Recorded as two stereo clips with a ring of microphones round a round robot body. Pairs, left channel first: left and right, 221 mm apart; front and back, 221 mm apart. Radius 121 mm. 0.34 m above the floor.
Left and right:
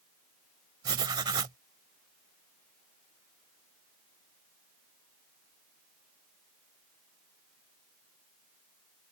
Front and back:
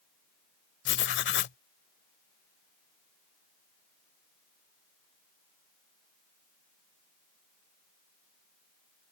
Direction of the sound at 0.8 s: 20° right.